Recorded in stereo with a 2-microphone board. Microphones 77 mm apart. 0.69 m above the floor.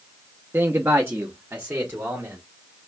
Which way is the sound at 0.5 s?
25° right (ahead or behind).